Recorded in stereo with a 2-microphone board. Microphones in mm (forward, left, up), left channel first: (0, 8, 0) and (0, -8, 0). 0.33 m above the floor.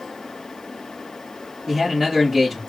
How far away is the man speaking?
About 4 m.